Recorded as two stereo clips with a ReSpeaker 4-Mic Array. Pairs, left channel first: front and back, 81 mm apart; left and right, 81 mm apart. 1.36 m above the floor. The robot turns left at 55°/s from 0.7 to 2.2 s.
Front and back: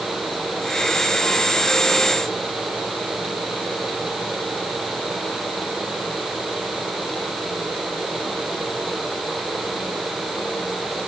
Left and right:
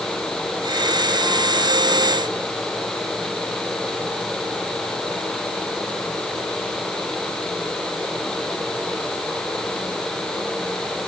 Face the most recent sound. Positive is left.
No sound to turn to.